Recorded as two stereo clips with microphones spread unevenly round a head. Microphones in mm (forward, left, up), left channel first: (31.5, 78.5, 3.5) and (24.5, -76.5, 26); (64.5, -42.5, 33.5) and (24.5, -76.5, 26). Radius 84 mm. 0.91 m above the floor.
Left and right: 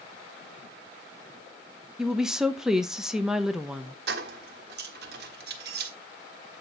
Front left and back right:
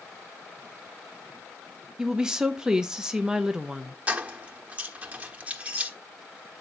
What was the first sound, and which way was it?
A woman speaking, 170° left.